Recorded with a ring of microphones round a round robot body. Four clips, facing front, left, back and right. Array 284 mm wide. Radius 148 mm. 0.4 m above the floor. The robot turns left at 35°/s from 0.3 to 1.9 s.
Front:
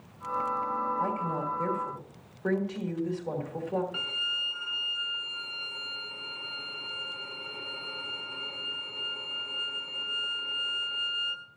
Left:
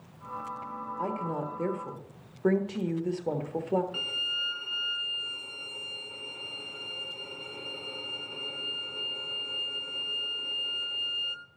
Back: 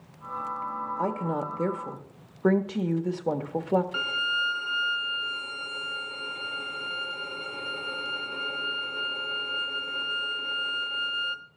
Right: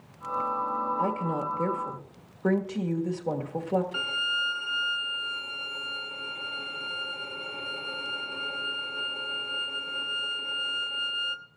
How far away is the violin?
About 1.2 m.